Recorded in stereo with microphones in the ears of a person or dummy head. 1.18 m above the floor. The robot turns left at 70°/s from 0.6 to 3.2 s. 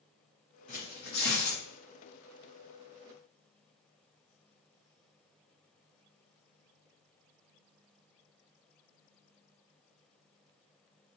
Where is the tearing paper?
135° left, 2 m; by 1.6 s 70° left, 2 m.